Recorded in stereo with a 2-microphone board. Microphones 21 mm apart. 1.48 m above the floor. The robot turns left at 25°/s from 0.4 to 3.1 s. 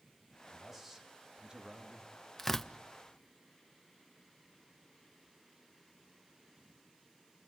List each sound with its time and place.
0.5 s a man speaking: straight ahead, 2 m; by 2.1 s 45° right, 2 m
2.4 s tearing paper: 5° left (ahead or behind), 0.7 m; by 2.7 s 15° left (ahead or behind), 0.7 m